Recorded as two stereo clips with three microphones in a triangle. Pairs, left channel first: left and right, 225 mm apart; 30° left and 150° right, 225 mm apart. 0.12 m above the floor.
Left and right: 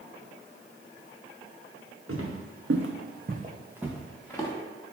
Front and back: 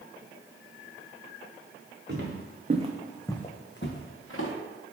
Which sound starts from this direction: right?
Footsteps, at 2.1 s.